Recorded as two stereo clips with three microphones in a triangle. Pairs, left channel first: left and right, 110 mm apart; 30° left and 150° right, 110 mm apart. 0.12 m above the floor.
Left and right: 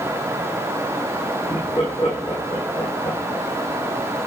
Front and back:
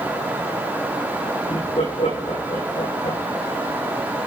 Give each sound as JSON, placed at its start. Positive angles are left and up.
{"t": 1.5, "sound": "laughter", "azimuth_deg": 40, "distance_m": 7.0}